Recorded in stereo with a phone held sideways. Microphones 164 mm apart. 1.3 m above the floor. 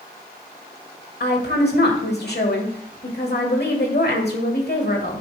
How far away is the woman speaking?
About 1.4 m.